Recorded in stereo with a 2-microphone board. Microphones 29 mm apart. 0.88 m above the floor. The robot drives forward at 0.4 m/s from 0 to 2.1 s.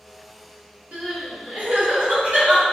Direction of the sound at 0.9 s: 60° right (ahead or behind).